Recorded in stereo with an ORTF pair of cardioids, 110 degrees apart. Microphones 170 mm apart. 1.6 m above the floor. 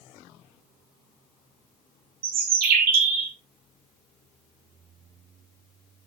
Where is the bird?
60° right, 2.5 m.